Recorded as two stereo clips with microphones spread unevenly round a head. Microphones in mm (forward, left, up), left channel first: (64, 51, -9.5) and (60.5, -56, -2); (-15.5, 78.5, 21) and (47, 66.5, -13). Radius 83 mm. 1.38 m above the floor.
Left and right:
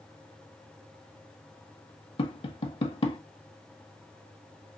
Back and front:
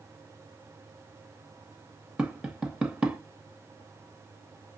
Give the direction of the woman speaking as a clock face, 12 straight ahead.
No woman speaking in this recording.